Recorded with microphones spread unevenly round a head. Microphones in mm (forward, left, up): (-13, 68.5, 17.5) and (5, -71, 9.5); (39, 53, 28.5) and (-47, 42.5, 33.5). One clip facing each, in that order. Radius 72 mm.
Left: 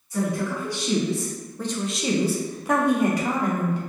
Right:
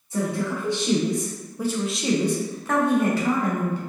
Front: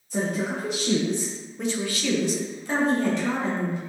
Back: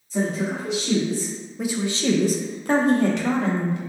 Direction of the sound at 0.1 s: 20° right.